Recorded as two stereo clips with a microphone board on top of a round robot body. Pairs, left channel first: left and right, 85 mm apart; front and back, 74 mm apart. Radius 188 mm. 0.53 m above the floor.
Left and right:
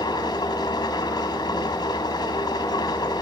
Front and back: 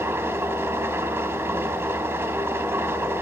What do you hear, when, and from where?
0.0 s an engine running: 125° left, 2.5 m